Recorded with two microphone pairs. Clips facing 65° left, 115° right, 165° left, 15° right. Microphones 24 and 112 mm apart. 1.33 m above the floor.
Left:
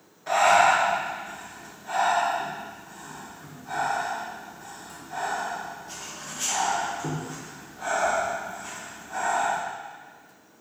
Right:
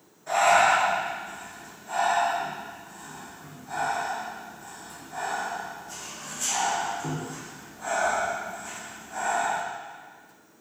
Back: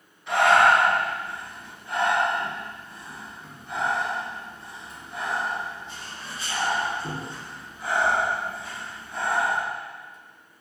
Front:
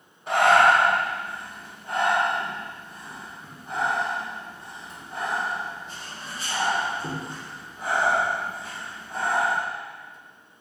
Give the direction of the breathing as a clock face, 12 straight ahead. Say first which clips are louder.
Left 1 dB, even; 11 o'clock.